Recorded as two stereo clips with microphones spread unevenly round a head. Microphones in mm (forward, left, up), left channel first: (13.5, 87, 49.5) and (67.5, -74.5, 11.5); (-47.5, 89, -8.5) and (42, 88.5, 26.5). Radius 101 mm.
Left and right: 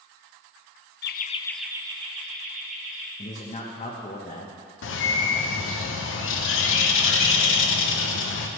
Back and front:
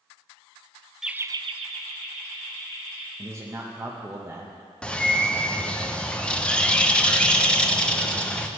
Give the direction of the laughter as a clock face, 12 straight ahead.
9 o'clock.